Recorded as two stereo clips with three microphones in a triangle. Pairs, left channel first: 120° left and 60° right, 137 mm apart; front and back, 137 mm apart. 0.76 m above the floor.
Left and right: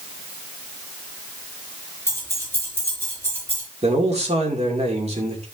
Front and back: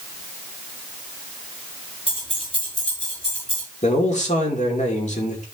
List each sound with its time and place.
2.1 s keys jangling: 45° left, 6.5 m; by 3.6 s 40° left, 7 m
3.8 s a man speaking: 25° right, 2.5 m